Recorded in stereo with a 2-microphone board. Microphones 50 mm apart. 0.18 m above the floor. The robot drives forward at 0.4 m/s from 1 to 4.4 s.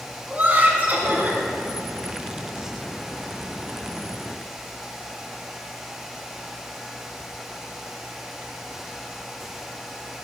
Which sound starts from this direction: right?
Laughter, at 0.3 s.